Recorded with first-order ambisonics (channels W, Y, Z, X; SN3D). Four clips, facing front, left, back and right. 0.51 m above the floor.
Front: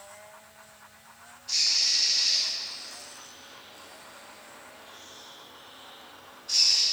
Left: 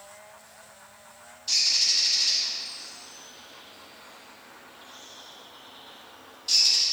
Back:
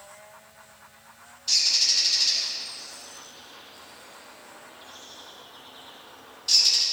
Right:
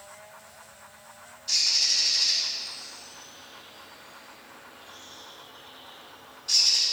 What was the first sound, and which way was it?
A bird, 155° left.